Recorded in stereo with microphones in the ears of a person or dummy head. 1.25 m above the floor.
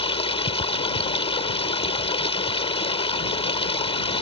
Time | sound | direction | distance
0.0 | running water | 40° left (ahead or behind) | ?